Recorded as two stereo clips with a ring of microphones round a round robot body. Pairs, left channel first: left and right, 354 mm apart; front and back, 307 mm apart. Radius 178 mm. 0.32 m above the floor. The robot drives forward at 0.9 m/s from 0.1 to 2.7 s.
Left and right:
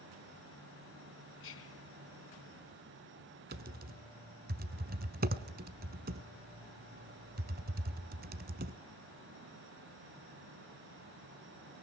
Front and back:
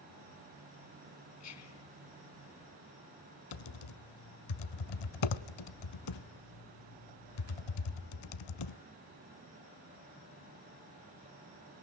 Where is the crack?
I don't hear a crack.